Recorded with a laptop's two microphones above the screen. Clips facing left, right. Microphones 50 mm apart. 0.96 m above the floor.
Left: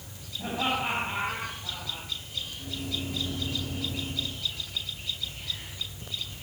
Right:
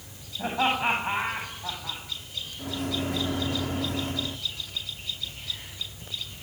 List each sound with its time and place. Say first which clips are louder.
0.4 s laughter: right 4 dB; 35° right (ahead or behind), 7.5 m; by 2.0 s 50° right (ahead or behind), 9 m
2.6 s a microwave: right 7 dB; 70° right (ahead or behind), 1.6 m